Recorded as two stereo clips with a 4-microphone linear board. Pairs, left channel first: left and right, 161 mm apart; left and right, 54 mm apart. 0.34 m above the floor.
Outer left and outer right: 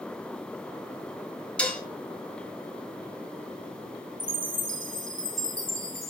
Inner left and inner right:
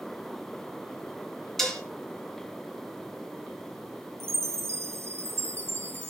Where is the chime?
50° right (ahead or behind), 1.6 m.